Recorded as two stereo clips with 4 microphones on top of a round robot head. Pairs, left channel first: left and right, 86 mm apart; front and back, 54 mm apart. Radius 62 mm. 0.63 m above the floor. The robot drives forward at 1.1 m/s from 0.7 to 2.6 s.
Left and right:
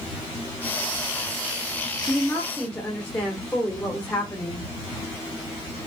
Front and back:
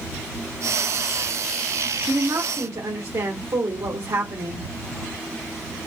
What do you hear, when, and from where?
2.1 s a woman speaking: 160° left, 1.1 m; by 4.6 s 170° left, 1.6 m